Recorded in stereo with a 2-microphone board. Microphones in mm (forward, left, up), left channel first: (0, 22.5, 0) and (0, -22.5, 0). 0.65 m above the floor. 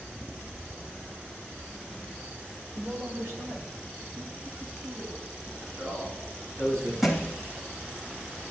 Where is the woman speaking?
45° right (ahead or behind), 2 m; by 5.5 s 85° right, 4.5 m.